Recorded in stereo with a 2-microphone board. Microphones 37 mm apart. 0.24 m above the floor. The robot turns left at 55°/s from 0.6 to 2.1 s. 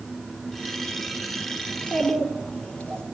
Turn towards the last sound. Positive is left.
turn(degrees=35)  # may be behind; listen again after turning